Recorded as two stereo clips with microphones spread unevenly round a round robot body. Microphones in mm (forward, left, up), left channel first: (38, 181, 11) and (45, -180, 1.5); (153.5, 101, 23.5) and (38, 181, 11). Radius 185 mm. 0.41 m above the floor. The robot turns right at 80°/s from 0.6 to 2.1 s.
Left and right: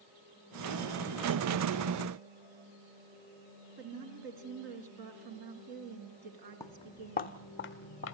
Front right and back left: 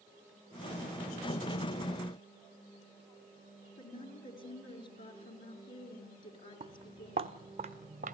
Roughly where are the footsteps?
Behind.